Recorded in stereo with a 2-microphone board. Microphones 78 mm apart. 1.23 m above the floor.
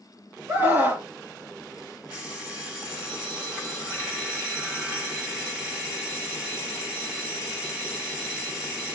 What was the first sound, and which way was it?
A scream, 25° right (ahead or behind).